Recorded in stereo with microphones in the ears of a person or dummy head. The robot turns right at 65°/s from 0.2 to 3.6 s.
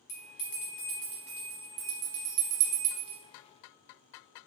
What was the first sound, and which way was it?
A bell, 60° left (ahead or behind).